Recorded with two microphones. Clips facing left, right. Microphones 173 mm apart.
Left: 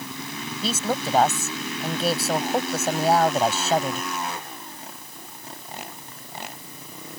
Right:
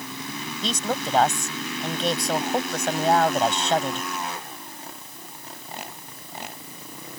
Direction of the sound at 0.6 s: 5° left (ahead or behind).